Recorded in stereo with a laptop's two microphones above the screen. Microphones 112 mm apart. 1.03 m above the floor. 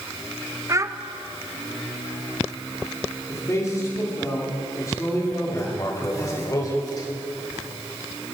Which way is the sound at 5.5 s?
35° left (ahead or behind).